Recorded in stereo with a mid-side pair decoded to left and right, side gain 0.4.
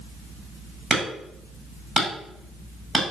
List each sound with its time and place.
0.9 s hammering: 35° right, 9 m